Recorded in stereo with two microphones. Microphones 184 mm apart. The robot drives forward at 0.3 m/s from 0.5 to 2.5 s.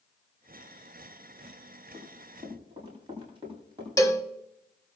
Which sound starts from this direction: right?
Running footsteps, at 1.9 s.